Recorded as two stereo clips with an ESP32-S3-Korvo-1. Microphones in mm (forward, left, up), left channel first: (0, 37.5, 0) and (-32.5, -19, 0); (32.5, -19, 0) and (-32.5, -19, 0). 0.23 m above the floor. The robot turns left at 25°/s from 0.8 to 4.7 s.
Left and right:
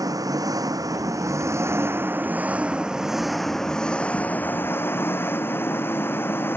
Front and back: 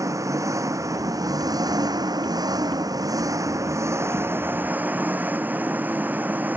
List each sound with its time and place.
0.0 s an engine running: 145° right; by 6.6 s 115° left